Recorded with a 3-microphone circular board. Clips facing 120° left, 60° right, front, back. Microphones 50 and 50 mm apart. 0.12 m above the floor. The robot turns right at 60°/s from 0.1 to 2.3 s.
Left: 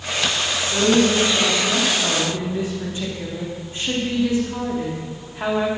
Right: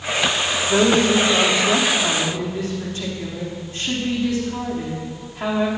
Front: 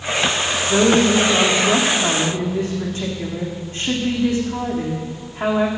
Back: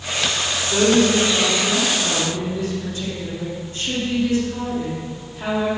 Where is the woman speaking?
45° right, 6.5 m; by 5.7 s 50° left, 6.5 m.